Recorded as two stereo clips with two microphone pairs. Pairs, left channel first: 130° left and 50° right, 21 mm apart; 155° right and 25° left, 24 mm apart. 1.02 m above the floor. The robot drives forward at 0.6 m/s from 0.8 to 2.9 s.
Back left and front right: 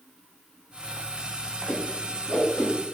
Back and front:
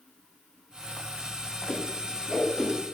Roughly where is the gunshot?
I don't hear a gunshot.